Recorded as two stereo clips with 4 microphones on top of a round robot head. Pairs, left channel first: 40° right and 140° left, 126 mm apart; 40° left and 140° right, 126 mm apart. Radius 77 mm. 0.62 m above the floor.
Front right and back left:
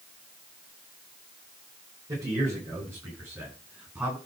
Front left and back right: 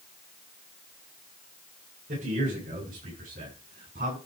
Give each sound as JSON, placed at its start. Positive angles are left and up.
{"t": 2.1, "sound": "a man speaking", "azimuth_deg": -155, "distance_m": 9.0}